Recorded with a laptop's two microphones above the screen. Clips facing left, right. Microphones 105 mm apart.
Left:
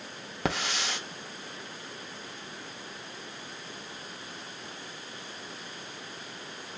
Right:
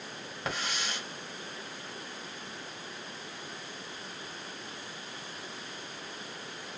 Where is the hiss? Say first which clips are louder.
Left 5 dB; 85° left, 1.0 m.